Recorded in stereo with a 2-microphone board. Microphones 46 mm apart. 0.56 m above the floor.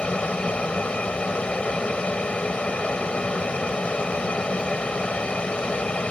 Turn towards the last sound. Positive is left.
turn(degrees=25)  # may be behind; listen again after turning